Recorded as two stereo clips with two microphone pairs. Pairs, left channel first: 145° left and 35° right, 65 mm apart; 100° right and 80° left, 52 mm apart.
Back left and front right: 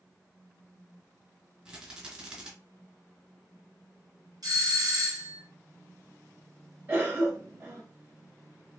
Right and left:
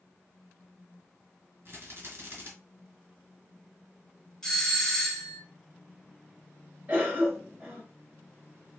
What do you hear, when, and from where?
1.6 s a rattle: 40° left, 2 m
4.4 s a doorbell: 25° right, 1.5 m
6.9 s a cough: 20° left, 1.1 m